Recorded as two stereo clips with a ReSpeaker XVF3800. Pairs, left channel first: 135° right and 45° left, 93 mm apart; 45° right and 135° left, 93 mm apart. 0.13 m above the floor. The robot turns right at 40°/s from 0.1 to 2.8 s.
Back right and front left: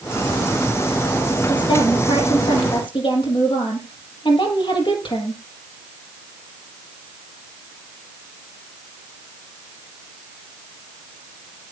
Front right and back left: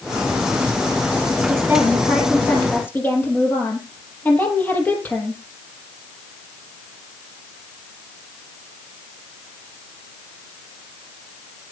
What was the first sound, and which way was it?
A woman speaking, 165° right.